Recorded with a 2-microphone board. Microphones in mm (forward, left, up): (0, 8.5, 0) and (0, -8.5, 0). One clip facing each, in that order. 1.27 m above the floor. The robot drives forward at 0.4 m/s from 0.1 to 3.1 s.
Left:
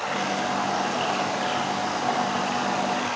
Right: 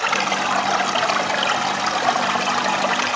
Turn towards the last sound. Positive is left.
turn(degrees=-85)